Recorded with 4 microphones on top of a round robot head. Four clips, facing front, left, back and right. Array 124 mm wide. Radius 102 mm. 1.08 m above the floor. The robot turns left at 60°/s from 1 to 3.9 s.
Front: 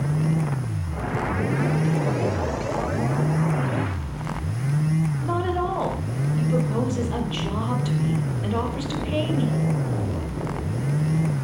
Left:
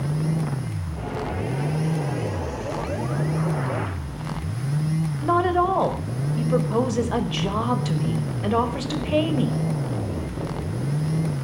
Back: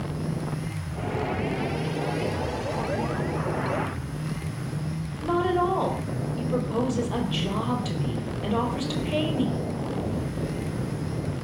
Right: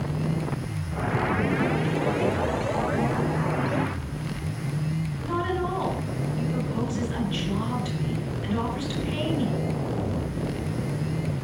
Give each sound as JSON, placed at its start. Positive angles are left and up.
{"t": 5.2, "sound": "a woman speaking", "azimuth_deg": 90, "distance_m": 4.5}